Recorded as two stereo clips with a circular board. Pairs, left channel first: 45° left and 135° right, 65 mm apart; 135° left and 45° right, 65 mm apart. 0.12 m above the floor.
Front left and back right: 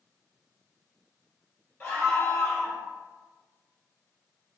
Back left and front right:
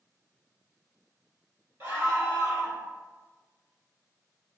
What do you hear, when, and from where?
1.8 s a scream: 20° right, 1.9 m